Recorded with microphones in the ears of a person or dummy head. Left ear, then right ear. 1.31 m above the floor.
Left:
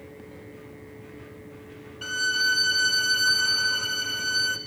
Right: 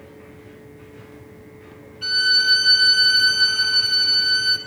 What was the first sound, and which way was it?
A violin, 40° left (ahead or behind).